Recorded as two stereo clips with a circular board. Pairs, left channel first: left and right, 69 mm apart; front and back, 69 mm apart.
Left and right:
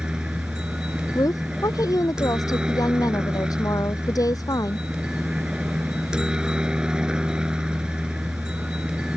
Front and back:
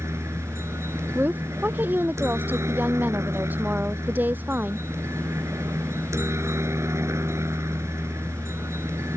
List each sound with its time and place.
0.0 s a helicopter: 165° right
1.1 s a woman speaking: 115° left